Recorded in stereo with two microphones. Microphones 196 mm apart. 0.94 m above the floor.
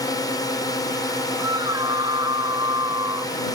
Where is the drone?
20° left (ahead or behind).